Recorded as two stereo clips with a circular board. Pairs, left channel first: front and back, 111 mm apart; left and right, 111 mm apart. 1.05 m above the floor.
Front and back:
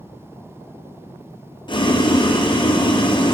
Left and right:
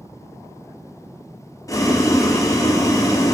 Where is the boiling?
35° left, 0.6 m.